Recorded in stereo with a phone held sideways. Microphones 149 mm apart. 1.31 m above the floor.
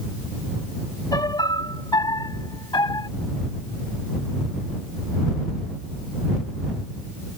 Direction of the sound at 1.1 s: 30° left (ahead or behind).